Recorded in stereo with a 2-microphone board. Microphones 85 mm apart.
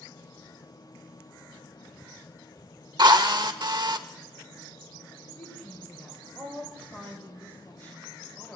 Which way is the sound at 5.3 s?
20° left (ahead or behind).